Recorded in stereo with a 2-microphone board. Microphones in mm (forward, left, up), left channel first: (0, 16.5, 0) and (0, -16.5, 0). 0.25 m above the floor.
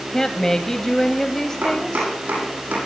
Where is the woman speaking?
15° left (ahead or behind), 1.0 m.